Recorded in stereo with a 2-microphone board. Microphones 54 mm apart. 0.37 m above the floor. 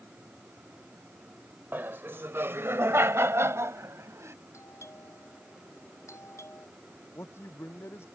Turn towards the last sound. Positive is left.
turn(degrees=50)  # may be behind; listen again after turning